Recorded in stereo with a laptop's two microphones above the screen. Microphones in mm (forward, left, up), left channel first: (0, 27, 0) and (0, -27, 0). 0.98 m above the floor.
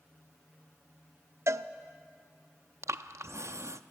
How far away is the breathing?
About 0.6 m.